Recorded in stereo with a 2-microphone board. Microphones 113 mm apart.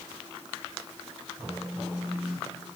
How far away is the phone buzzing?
About 3.5 m.